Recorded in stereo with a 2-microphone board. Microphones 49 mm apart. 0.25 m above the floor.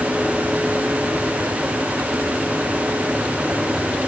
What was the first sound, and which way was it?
Only background noise.